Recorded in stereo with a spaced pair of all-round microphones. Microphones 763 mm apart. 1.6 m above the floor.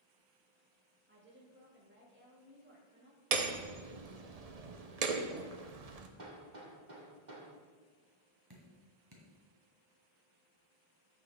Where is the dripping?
30° right (ahead or behind), 2 m.